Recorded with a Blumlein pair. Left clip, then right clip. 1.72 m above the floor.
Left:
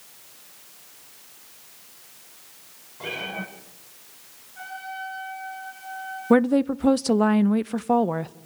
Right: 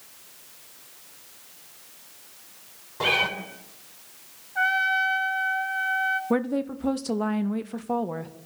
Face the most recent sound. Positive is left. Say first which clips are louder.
# left 7 dB
turn(degrees=20)